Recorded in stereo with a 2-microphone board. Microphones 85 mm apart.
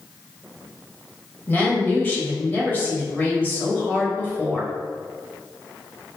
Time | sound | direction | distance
1.5 | a woman speaking | 25° left (ahead or behind) | 1.5 m